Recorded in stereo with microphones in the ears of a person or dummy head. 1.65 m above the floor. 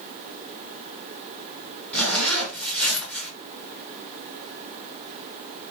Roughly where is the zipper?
Centre.